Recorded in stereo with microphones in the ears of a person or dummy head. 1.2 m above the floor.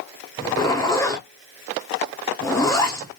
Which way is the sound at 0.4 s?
10° left (ahead or behind).